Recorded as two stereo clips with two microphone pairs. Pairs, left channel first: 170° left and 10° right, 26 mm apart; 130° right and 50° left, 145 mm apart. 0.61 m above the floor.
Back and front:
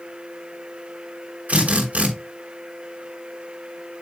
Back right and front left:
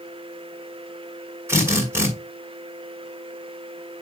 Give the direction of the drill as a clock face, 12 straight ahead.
1 o'clock.